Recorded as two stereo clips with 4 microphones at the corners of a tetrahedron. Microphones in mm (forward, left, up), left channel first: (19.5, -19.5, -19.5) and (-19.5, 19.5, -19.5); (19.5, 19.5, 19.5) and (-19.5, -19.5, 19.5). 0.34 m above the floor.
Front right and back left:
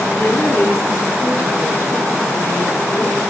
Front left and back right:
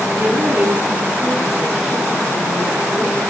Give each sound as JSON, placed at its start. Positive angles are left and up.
{"t": 0.2, "sound": "a woman speaking", "azimuth_deg": -90, "distance_m": 3.0}